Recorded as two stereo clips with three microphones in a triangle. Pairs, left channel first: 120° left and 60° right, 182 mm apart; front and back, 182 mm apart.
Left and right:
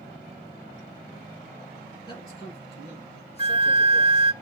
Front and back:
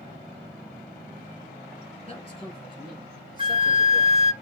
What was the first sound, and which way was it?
A man speaking, 60° left.